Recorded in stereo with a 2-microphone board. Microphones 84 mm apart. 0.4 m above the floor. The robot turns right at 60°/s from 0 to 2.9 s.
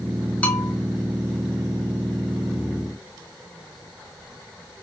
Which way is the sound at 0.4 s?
20° left (ahead or behind).